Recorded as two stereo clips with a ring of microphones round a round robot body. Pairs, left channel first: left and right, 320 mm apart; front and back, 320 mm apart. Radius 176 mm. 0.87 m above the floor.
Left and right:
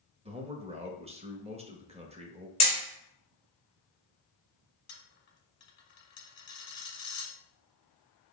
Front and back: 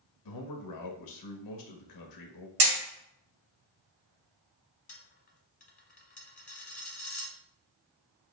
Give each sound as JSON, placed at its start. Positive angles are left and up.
{"t": 0.2, "sound": "a man speaking", "azimuth_deg": -20, "distance_m": 1.1}
{"t": 2.6, "sound": "hammering", "azimuth_deg": 165, "distance_m": 2.5}
{"t": 4.9, "sound": "a dropped coin", "azimuth_deg": 55, "distance_m": 0.9}